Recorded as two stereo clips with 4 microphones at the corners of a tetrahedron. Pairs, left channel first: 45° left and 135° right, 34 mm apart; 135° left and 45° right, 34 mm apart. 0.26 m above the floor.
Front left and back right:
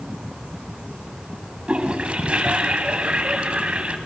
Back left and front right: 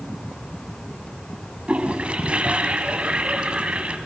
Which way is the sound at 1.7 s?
90° right.